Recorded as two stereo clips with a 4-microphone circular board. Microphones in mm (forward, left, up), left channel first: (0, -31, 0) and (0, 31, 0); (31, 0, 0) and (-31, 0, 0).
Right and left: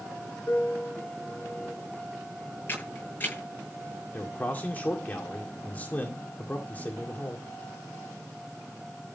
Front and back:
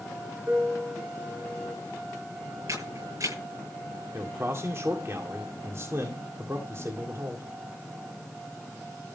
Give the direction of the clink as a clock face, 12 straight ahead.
I don't hear a clink.